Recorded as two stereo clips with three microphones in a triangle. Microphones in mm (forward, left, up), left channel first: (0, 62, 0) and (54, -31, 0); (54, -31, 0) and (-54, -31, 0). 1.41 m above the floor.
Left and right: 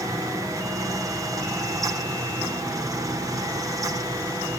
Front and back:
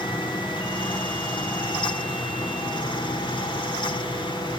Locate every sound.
Only background noise.